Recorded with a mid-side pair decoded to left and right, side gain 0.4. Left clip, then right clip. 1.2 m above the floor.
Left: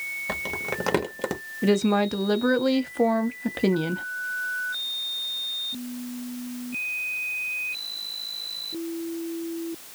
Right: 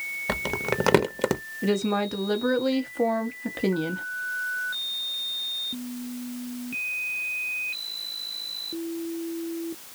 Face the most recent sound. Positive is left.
turn(degrees=25)